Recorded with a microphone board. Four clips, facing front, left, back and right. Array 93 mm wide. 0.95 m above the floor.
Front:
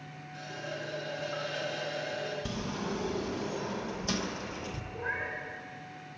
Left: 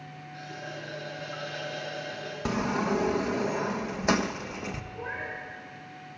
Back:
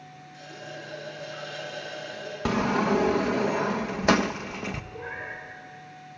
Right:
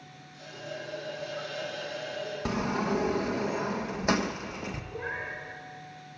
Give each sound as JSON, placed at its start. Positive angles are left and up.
{"t": 0.3, "sound": "a running tap", "azimuth_deg": 30, "distance_m": 6.5}
{"t": 2.5, "sound": "a sliding door", "azimuth_deg": 175, "distance_m": 0.6}
{"t": 4.9, "sound": "a cat meowing", "azimuth_deg": -105, "distance_m": 7.5}